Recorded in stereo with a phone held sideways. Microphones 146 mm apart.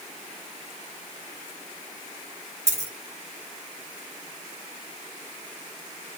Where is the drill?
No drill in this recording.